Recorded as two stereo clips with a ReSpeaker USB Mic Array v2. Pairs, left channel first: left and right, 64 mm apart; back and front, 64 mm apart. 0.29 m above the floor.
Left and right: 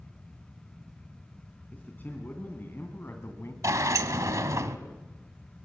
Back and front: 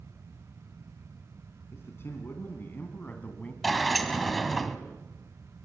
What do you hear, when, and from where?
1.7 s a man speaking: 145° left, 3 m; by 3.5 s 120° left, 2.5 m
3.6 s a sliding door: 90° right, 1.2 m